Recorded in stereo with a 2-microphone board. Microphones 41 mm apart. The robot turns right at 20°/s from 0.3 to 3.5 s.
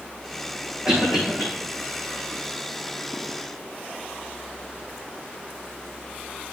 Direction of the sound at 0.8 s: 15° right (ahead or behind).